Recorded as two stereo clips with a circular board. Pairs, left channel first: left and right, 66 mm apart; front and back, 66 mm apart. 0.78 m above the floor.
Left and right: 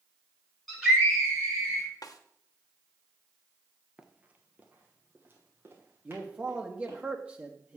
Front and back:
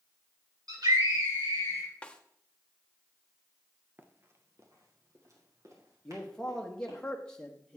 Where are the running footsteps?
155° right, 0.8 m; by 7.0 s 145° right, 4 m.